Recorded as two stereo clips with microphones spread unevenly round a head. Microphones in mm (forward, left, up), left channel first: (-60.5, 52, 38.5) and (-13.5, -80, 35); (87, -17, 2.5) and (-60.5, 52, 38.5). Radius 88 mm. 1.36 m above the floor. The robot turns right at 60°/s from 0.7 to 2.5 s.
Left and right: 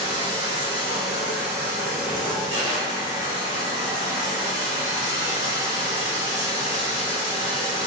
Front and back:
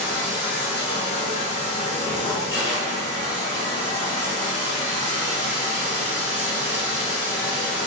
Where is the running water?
75° right, 1.3 m; by 7.9 s 35° left, 1.3 m.